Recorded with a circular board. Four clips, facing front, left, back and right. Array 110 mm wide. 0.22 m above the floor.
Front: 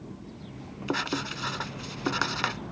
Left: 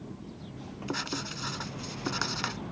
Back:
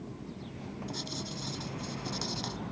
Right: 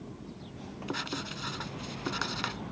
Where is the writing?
5° left.